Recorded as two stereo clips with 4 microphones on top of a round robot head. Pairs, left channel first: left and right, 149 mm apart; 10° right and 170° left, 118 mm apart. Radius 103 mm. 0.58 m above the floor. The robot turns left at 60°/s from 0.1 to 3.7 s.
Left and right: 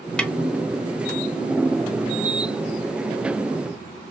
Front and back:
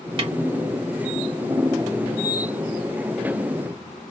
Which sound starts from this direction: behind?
A snare drum, at 0.2 s.